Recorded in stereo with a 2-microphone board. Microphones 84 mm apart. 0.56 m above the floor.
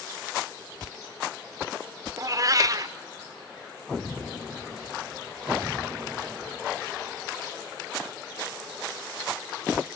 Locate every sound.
2.2 s a cat meowing: 45° right (ahead or behind), 0.6 m